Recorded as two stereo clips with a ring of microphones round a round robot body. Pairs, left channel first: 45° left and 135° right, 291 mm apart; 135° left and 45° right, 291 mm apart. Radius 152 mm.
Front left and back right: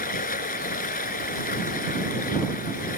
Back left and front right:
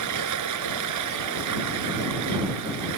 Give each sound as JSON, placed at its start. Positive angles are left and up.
{"t": 0.0, "sound": "running water", "azimuth_deg": -20}